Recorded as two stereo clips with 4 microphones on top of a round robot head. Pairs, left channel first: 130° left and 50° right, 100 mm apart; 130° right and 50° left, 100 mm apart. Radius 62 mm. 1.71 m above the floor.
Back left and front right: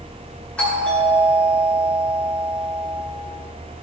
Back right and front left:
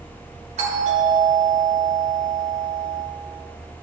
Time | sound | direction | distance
0.6 | a doorbell | 55° left | 4 m